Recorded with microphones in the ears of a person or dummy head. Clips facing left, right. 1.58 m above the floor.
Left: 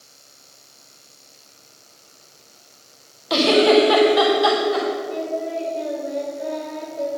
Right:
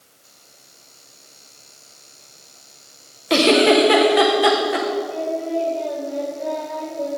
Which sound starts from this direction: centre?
Singing, at 5.1 s.